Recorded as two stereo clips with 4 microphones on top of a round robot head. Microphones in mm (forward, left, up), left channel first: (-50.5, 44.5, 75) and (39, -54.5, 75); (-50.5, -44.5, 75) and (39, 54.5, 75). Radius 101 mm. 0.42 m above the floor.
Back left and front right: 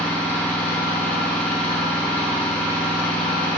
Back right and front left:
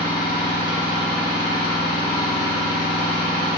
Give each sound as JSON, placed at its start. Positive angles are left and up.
{"t": 0.0, "sound": "an engine running", "azimuth_deg": 55, "distance_m": 3.5}